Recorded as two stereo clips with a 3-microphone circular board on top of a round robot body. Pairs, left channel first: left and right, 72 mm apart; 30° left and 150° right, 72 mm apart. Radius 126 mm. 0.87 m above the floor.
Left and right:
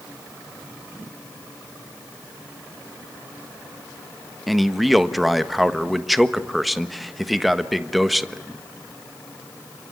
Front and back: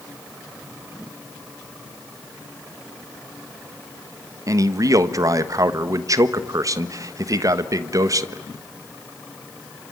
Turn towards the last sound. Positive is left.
turn(degrees=180)